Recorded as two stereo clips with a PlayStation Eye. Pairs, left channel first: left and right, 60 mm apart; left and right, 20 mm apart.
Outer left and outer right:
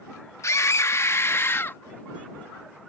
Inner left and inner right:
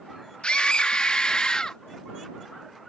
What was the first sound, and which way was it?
A scream, 60° left (ahead or behind).